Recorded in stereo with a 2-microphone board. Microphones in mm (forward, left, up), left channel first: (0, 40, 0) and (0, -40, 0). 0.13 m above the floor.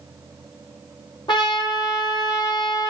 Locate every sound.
1.3 s a trumpet: 75° left (ahead or behind), 4 m